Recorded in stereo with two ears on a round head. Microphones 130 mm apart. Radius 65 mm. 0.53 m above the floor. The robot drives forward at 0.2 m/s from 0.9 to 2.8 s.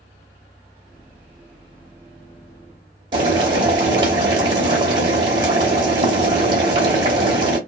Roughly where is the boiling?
Right.